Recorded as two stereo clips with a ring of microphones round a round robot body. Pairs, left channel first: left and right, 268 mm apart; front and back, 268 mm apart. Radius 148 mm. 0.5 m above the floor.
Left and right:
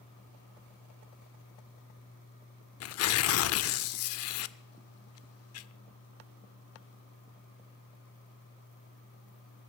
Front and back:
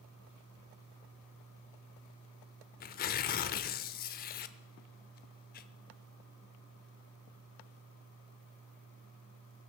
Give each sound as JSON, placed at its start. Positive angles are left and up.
{"t": 2.8, "sound": "tearing paper", "azimuth_deg": 60, "distance_m": 0.6}